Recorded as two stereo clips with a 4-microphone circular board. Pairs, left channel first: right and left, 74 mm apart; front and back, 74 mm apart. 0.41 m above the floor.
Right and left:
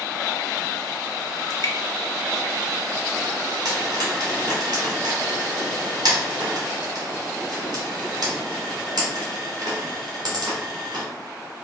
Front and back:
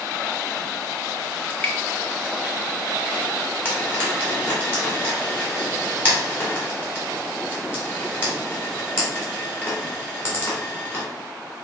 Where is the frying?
65° left, 1.9 m.